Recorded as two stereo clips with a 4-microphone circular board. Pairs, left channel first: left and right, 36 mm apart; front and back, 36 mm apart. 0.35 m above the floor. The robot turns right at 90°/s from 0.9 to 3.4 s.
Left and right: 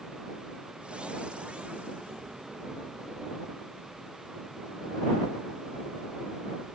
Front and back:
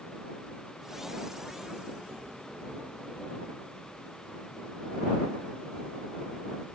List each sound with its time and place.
Only background noise.